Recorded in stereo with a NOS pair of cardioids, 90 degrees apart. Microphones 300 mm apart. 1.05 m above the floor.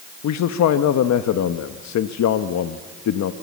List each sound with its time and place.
0.2 s a man speaking: 65° left, 1.1 m